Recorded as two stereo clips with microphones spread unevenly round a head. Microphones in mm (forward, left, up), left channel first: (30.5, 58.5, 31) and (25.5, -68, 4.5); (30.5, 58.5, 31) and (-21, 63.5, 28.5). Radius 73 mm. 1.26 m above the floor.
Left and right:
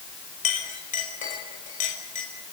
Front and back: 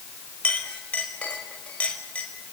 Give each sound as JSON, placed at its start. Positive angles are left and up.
{"t": 0.4, "sound": "a clink", "azimuth_deg": 60, "distance_m": 5.0}